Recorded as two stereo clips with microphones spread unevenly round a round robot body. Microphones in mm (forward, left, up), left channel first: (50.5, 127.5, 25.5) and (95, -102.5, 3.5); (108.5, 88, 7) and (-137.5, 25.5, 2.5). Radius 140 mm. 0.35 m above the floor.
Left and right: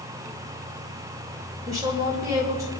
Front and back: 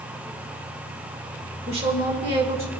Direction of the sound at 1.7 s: 130° right.